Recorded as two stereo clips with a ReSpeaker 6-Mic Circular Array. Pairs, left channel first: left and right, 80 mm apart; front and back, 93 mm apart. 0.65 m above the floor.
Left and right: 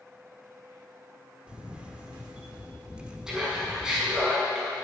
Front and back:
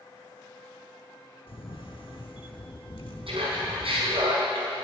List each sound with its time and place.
1.5 s a camera shutter: 15° right, 1.1 m
3.3 s laughter: 175° right, 6 m